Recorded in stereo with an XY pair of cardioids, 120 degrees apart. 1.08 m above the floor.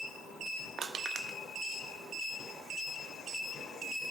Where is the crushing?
45° right, 0.7 m.